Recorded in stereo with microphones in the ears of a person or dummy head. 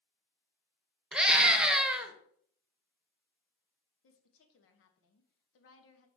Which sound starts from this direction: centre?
A scream, at 1.1 s.